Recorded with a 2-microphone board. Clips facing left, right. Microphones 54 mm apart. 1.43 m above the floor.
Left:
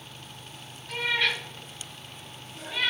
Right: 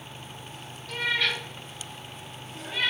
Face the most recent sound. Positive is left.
turn(degrees=-40)  # may be behind; listen again after turning